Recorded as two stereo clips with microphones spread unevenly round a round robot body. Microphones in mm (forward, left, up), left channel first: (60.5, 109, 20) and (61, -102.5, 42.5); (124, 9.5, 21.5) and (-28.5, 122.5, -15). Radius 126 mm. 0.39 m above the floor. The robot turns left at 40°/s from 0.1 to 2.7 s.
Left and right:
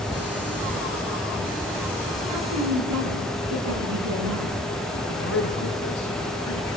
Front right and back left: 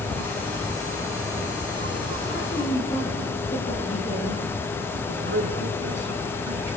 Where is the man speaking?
130° left, 4.5 m.